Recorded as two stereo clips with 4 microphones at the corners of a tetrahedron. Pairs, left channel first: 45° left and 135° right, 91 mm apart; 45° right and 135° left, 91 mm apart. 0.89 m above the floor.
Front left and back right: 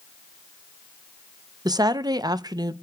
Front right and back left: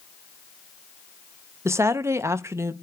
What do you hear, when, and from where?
1.6 s a woman speaking: 170° right, 0.6 m